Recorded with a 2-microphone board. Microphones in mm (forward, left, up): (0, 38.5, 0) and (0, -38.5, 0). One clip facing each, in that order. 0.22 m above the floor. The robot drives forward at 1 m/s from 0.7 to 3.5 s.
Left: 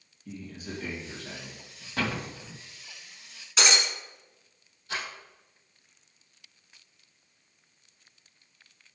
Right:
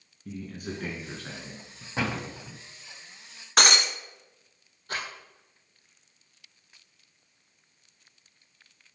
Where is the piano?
No piano in this recording.